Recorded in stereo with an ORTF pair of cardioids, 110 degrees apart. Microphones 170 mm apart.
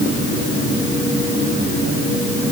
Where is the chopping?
I don't hear chopping.